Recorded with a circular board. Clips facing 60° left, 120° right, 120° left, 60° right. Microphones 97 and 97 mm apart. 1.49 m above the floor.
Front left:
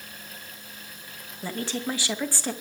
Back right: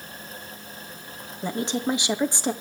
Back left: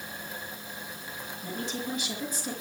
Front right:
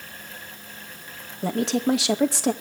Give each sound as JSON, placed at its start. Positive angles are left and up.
{"t": 1.4, "sound": "a woman speaking", "azimuth_deg": -50, "distance_m": 2.0}